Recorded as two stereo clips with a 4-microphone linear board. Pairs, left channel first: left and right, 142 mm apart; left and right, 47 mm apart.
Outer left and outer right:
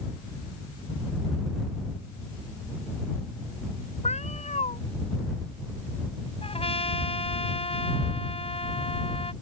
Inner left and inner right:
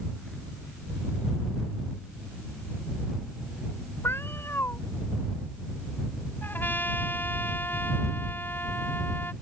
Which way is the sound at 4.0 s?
55° left (ahead or behind).